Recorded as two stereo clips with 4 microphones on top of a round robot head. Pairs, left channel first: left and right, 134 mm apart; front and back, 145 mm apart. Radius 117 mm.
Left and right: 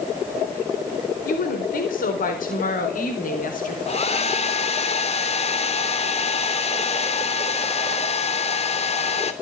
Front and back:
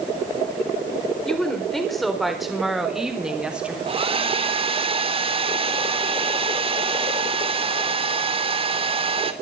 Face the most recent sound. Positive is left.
turn(degrees=130)